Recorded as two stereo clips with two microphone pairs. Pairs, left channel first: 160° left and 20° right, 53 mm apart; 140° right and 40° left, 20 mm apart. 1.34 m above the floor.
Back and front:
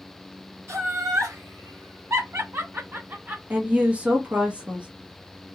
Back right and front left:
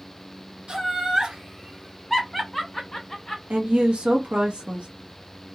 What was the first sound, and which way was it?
Laughter, 10° left.